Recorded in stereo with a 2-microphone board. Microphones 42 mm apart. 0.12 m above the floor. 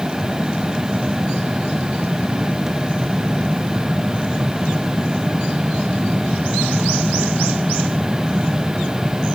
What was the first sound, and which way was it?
Only background noise.